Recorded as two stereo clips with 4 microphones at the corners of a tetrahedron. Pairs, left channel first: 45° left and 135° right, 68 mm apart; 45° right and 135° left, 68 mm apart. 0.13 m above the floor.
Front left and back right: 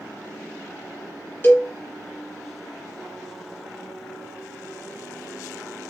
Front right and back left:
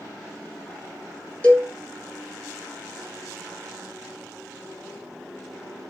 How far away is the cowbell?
About 1.9 m.